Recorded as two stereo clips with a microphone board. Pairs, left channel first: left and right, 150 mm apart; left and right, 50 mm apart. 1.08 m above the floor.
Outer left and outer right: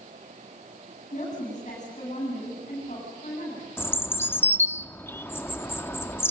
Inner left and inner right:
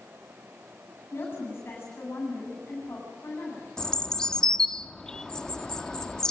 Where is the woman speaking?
55° left (ahead or behind), 8 m.